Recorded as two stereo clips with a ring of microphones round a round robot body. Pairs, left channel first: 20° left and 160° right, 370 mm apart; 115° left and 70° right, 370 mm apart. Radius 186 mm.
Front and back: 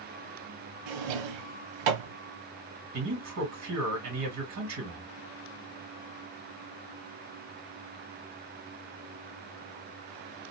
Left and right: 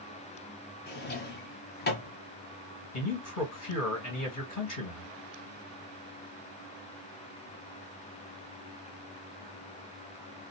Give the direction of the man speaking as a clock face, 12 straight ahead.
7 o'clock.